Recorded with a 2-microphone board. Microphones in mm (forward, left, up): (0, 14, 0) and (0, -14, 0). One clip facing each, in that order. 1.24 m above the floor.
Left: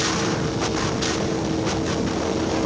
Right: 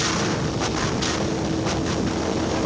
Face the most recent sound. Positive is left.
turn(degrees=-10)  # may be behind; listen again after turning